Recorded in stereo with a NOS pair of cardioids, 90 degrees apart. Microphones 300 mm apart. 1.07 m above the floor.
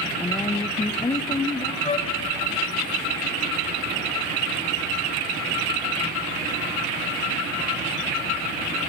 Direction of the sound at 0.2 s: 15° left.